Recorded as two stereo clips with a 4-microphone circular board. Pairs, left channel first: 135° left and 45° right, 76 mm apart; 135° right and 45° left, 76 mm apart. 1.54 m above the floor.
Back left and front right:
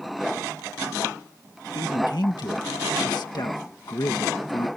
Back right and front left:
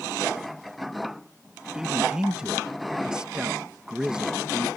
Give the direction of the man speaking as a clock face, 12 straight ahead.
8 o'clock.